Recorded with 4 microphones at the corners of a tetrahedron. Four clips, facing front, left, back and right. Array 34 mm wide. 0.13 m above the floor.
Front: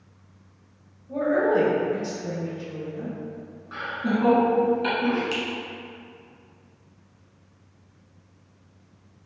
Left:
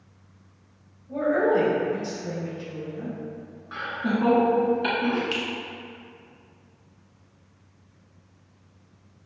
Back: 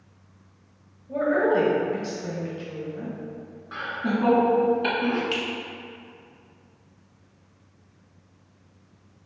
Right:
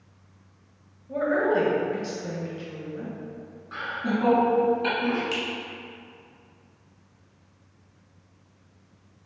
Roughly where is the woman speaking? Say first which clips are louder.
Left 1 dB, even; behind right.